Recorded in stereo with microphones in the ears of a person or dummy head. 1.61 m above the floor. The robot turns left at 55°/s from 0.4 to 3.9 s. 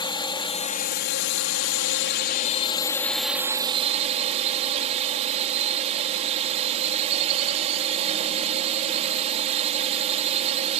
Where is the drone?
160° left; by 10.8 s 35° right.